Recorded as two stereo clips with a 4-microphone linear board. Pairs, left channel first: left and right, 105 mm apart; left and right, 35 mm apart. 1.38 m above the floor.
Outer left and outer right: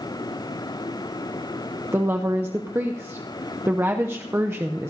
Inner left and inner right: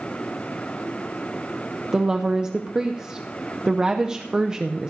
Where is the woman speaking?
20° right (ahead or behind), 0.6 m.